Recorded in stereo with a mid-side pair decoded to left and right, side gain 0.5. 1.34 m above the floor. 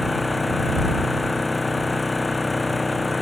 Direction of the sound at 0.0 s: 15° left.